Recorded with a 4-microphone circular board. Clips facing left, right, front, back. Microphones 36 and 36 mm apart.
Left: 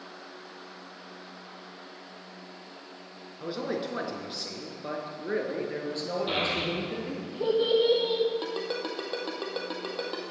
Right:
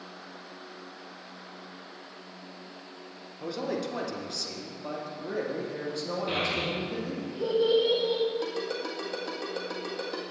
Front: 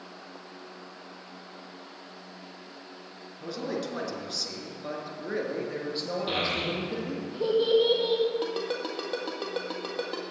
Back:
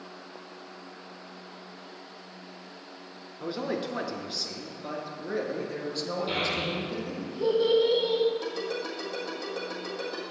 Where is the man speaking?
140° left, 1.3 m; by 7.3 s 60° left, 2.5 m.